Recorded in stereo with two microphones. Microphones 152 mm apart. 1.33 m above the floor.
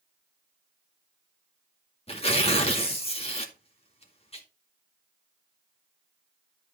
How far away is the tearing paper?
About 2 m.